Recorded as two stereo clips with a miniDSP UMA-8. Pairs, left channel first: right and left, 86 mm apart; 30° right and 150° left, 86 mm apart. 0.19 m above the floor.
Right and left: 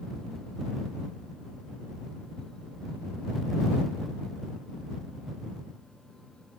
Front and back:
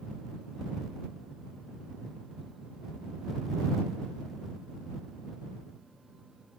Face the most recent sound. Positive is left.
No sound to turn to.